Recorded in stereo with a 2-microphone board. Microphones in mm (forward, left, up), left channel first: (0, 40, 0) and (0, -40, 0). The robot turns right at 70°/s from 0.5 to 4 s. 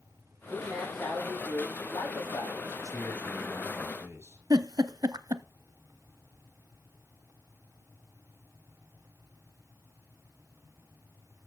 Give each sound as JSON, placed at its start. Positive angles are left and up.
{"t": 0.5, "sound": "a man speaking", "azimuth_deg": -35, "distance_m": 9.0}
{"t": 2.8, "sound": "a man speaking", "azimuth_deg": 130, "distance_m": 10.0}
{"t": 4.5, "sound": "a giggle", "side_deg": -55, "distance_m": 0.7}